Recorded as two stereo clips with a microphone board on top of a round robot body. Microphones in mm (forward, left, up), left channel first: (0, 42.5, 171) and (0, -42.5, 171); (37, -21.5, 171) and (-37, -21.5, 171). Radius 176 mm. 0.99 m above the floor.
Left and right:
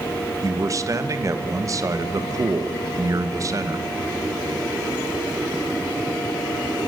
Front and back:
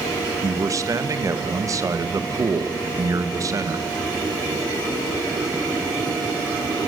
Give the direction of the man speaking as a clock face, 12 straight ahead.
5 o'clock.